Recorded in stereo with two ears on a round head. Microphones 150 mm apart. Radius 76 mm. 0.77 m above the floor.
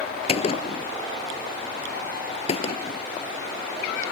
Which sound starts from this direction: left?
A gunshot, at 0.3 s.